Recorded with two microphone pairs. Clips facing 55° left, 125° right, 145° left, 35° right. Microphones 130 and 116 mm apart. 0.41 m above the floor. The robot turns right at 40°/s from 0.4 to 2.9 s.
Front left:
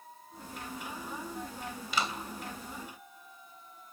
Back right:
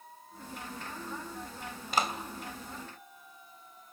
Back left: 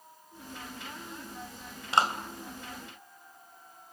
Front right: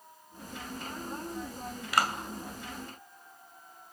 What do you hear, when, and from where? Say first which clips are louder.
1.9 s a clap: back right 3 dB, back left 2 dB; 160° right, 2 m; by 2.1 s 150° right, 2 m